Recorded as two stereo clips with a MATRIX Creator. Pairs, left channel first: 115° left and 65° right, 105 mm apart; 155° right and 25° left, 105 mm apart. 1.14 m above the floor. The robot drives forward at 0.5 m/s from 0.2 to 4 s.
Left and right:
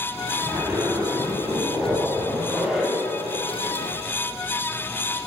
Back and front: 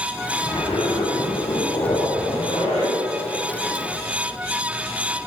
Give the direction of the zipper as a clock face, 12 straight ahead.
4 o'clock.